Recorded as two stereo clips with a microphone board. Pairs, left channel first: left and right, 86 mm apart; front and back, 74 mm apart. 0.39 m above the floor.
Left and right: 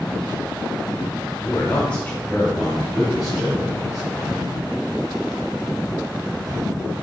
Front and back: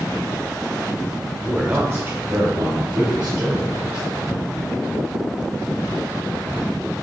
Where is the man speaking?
105° left, 0.9 m; by 4.5 s 170° right, 3 m.